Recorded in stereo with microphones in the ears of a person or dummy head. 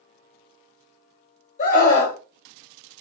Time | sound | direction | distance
1.6 | a scream | 40° left (ahead or behind) | 1.5 m